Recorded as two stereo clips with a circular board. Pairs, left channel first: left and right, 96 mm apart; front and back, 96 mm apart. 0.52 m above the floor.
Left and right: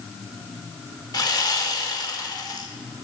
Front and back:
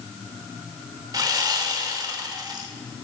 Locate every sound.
1.1 s sawing: 135° left, 0.7 m